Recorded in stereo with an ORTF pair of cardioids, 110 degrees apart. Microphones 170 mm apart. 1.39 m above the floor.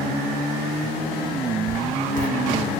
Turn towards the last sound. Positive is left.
turn(degrees=50)